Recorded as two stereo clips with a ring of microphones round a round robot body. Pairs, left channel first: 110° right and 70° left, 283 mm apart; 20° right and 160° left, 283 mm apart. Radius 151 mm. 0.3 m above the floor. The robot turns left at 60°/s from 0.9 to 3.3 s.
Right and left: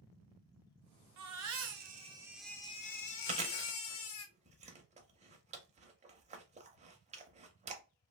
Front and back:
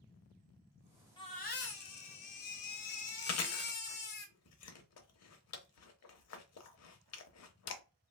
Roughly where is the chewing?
Ahead.